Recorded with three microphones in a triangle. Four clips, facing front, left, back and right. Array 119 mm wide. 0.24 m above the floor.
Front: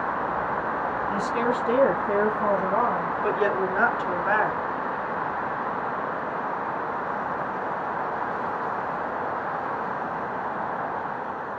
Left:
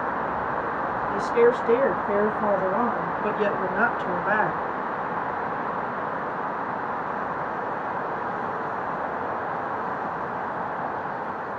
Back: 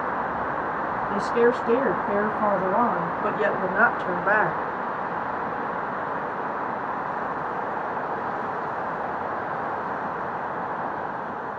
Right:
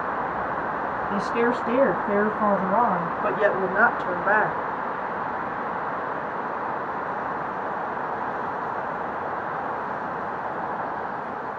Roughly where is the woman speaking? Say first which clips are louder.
Left 4 dB, back 6 dB; right.